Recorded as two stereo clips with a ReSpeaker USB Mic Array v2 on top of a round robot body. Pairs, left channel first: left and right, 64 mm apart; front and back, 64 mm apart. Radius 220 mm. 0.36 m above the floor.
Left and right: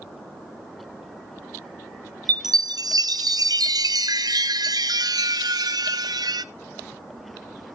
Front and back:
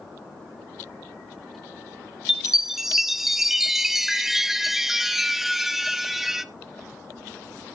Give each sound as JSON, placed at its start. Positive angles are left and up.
{"t": 2.3, "sound": "a chime", "azimuth_deg": -95, "distance_m": 0.6}